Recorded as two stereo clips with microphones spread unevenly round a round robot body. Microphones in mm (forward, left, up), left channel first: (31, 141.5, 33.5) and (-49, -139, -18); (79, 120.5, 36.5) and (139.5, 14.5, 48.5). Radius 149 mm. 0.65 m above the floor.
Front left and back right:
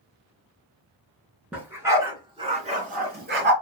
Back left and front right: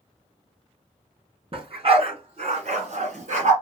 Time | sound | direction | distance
1.5 | a dog barking | 20° right | 2.5 m